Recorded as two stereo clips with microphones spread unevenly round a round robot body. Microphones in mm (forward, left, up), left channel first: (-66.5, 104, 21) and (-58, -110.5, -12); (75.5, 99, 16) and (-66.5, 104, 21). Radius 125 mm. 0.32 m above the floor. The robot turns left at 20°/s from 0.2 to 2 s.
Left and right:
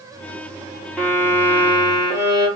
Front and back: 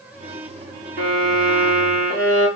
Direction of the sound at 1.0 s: Straight behind.